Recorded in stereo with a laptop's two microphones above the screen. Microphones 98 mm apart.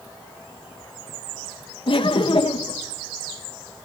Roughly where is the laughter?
Left.